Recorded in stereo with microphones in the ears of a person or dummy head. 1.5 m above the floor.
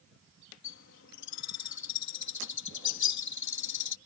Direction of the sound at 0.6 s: 65° left (ahead or behind).